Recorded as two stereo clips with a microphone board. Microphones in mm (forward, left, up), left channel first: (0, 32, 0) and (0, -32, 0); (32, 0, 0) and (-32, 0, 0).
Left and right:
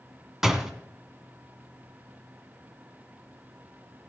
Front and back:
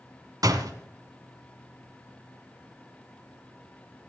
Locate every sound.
0.4 s a door slam: 175° right, 1.9 m